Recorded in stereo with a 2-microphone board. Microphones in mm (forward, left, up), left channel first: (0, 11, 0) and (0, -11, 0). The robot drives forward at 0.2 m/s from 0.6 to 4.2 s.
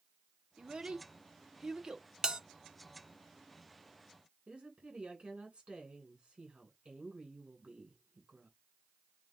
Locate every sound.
0.6 s a child speaking: 45° right (ahead or behind), 0.6 m; by 2.1 s 35° right (ahead or behind), 0.8 m
2.2 s a bell: 35° right (ahead or behind), 0.6 m
4.5 s a woman speaking: 55° right (ahead or behind), 3 m